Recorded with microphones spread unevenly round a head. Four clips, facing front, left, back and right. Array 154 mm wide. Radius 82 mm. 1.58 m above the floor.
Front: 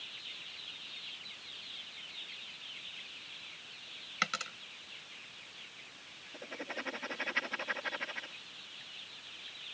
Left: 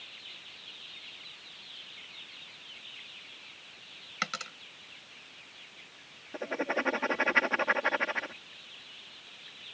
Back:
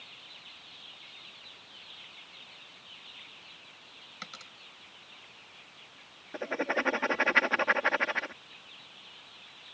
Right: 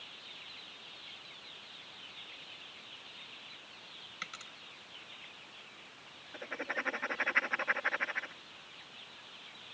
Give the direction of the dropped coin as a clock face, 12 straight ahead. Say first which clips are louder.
Left 12 dB, front 11 dB; 10 o'clock.